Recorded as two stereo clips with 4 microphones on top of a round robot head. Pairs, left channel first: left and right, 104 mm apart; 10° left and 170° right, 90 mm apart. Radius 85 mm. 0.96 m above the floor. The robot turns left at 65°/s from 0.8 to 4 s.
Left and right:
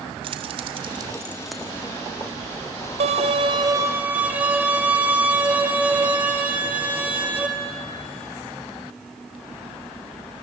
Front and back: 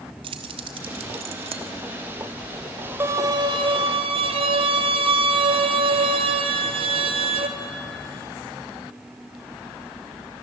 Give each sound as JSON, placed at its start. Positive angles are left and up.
{"t": 0.2, "sound": "keys jangling", "azimuth_deg": -135, "distance_m": 1.2}
{"t": 3.0, "sound": "a violin", "azimuth_deg": -100, "distance_m": 1.6}